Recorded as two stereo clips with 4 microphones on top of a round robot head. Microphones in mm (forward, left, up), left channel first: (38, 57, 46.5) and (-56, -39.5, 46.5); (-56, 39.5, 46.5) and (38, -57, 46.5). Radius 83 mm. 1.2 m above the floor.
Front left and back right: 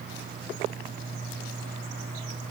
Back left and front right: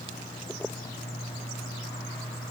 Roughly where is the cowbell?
I don't hear a cowbell.